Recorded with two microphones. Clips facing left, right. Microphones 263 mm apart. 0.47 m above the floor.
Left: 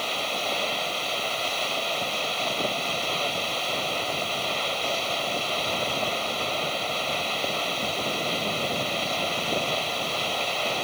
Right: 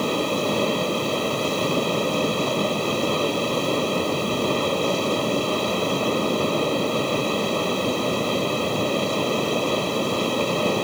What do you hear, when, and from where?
0.0 s running water: 60° right (ahead or behind)